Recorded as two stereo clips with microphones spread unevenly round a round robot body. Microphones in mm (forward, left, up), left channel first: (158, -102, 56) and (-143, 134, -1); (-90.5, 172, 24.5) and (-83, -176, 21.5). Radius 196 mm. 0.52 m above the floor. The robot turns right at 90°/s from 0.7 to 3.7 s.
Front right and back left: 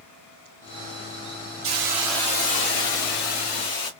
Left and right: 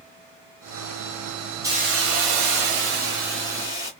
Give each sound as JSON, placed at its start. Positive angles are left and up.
{"t": 1.6, "sound": "a hiss", "azimuth_deg": -170, "distance_m": 1.1}